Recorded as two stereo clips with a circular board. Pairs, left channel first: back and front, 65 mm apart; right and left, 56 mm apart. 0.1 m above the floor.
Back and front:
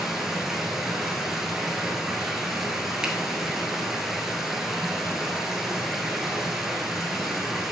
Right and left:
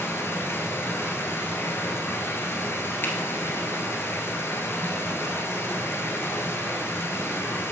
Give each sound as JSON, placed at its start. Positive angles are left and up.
{"t": 0.0, "sound": "running water", "azimuth_deg": -80, "distance_m": 1.3}
{"t": 3.0, "sound": "a finger snap", "azimuth_deg": -70, "distance_m": 1.2}